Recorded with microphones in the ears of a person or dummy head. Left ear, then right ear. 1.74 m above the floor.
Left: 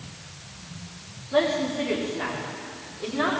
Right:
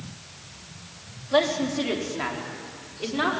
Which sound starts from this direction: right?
A man speaking, at 1.3 s.